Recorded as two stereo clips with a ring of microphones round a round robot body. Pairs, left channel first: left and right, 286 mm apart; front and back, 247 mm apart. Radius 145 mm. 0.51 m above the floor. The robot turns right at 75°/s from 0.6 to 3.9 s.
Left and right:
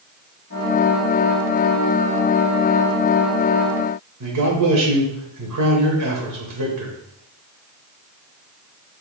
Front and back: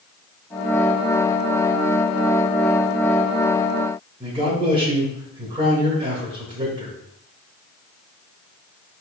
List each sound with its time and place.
4.2 s a man speaking: 110° right, 2 m